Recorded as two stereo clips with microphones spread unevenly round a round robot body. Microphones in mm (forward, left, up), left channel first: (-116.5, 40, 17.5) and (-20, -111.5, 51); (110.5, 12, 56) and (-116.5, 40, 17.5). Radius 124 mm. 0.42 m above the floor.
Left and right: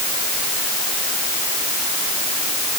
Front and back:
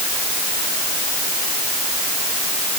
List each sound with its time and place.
Only background noise.